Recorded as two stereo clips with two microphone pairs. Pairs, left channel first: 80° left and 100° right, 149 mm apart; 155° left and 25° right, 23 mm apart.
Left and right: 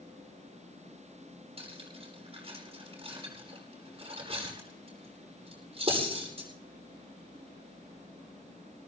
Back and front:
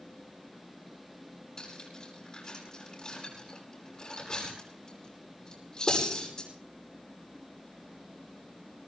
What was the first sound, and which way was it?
Cutlery clinking, 150° right.